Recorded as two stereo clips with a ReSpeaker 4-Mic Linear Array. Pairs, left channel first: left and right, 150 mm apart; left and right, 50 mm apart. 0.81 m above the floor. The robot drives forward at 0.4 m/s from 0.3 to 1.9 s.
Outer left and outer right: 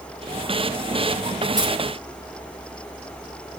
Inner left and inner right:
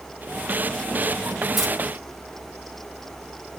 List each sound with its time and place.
1.6 s keys jangling: 5° right (ahead or behind), 6 m